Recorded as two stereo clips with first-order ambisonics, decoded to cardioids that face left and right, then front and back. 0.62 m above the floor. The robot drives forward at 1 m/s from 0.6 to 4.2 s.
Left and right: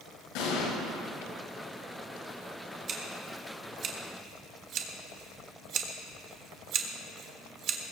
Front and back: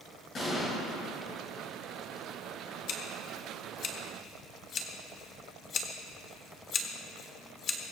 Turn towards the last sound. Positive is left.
turn(degrees=-55)